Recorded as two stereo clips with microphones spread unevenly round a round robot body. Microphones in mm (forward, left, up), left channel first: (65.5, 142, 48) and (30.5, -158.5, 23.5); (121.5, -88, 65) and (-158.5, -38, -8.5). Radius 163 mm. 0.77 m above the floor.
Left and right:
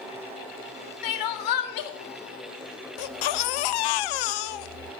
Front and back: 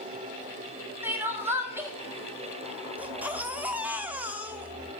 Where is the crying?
95° left, 1.6 m.